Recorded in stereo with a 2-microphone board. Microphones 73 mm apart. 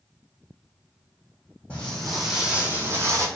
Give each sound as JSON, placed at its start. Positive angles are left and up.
{"t": 1.7, "sound": "footsteps", "side_deg": 15, "distance_m": 0.9}